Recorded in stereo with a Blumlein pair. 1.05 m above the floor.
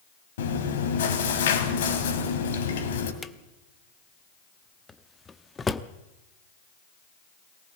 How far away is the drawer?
About 0.9 m.